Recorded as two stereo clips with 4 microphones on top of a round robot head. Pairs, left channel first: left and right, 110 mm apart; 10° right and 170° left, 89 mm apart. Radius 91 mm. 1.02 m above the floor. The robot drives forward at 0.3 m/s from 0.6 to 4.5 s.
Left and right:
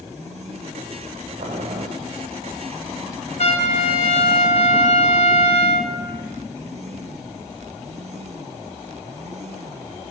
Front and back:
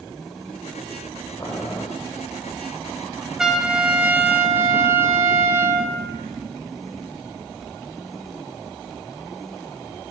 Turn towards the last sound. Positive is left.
turn(degrees=105)